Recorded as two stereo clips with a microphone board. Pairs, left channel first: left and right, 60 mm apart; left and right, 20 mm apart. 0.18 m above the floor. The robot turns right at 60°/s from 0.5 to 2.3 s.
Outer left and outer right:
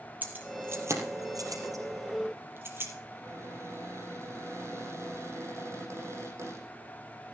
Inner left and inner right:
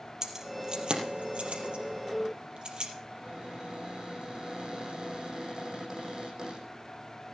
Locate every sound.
0.2 s keys jangling: 25° right (ahead or behind), 4 m; by 2.9 s 45° right (ahead or behind), 4 m
3.1 s a cupboard door: 50° right (ahead or behind), 9.5 m